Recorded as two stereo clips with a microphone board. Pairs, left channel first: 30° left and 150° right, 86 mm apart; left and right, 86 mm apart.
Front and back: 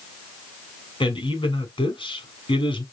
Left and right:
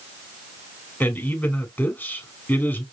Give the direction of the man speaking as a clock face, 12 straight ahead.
11 o'clock.